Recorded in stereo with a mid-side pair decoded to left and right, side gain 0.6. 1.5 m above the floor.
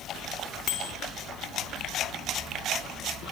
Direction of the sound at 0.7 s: 55° left.